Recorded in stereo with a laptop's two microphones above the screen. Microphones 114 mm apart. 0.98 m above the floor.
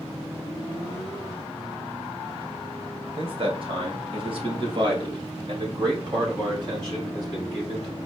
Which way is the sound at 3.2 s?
50° right (ahead or behind).